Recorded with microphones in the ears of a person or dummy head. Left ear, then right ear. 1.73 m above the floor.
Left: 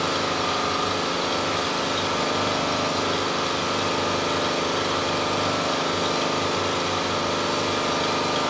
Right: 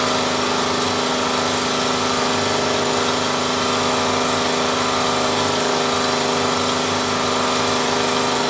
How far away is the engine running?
About 1.1 m.